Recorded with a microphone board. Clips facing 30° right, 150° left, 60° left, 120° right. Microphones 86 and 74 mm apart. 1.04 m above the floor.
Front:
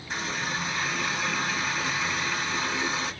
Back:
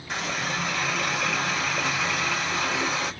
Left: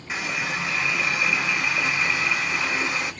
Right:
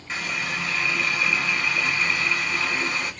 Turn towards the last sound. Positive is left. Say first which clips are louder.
# back 2 dB, left 1 dB
turn(degrees=135)